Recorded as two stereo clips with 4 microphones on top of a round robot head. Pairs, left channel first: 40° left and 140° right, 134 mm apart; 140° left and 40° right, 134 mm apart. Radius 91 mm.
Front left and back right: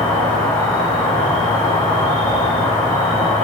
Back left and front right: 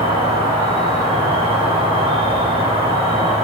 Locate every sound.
0.0 s an insect: 5° right, 1.9 m